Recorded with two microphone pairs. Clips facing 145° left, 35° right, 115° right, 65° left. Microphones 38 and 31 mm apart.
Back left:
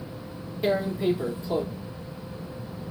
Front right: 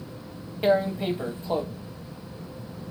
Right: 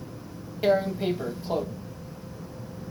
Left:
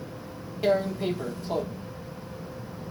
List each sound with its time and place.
0.6 s tearing paper: 45° right, 0.9 m